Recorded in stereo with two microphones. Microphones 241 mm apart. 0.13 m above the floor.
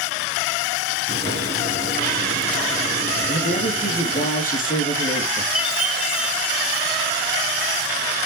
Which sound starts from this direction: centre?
A chime, at 5.5 s.